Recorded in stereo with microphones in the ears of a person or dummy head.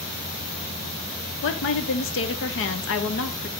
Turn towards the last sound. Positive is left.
turn(degrees=65)  # may be behind; listen again after turning